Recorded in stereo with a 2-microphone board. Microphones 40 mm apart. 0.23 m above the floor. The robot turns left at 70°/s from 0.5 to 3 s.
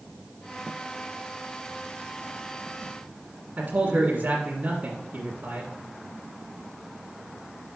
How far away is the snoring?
No snoring in this recording.